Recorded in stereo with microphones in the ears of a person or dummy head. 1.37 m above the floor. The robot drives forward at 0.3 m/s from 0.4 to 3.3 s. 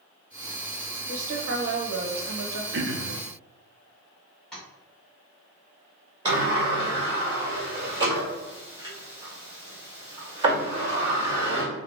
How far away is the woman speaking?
About 0.9 m.